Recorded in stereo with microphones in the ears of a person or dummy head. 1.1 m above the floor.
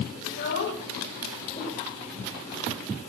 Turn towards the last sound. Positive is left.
turn(degrees=30)  # may be behind; listen again after turning